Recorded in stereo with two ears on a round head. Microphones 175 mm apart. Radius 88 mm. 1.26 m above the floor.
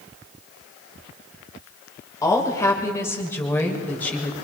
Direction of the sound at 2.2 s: 15° left (ahead or behind).